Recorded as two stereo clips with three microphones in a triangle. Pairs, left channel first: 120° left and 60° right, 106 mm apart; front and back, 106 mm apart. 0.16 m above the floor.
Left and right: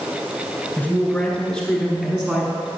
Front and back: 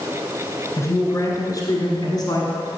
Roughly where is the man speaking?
Ahead left.